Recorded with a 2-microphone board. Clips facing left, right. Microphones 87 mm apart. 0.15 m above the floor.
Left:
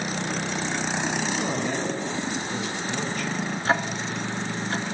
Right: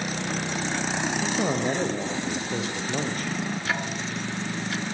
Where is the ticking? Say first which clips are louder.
Left 4 dB; 35° left (ahead or behind), 0.7 m.